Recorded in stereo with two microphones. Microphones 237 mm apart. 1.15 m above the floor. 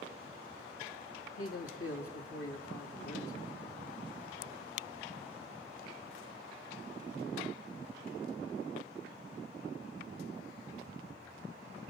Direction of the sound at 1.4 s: 75° left (ahead or behind).